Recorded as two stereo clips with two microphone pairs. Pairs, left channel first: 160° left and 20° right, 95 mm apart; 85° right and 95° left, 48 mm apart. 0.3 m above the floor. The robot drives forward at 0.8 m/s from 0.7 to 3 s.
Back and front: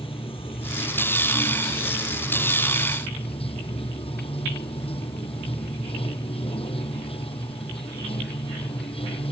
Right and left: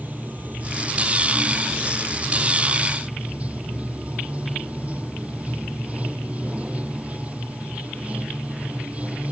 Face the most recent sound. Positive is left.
turn(degrees=155)